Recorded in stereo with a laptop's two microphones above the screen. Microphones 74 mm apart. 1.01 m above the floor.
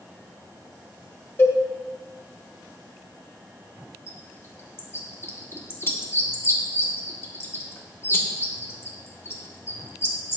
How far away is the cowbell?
About 1.2 m.